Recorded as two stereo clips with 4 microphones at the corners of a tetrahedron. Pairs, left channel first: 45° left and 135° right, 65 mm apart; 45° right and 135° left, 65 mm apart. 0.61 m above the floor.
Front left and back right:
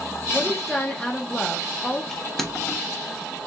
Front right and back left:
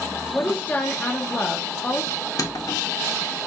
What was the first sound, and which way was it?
A woman speaking, 25° right.